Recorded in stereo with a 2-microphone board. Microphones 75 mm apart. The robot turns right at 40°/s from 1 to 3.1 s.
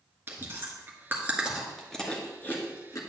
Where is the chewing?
30° right (ahead or behind), 1.6 m; by 3.0 s 50° left (ahead or behind), 1.6 m.